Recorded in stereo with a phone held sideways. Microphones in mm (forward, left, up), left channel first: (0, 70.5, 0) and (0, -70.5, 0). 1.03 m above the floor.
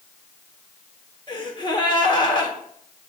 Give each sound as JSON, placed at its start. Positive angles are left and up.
{"t": 1.3, "sound": "a gasp", "side_deg": 30, "distance_m": 1.4}